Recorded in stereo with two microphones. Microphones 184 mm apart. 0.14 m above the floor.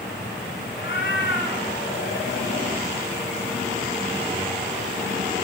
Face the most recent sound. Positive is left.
turn(degrees=75)  # may be behind; listen again after turning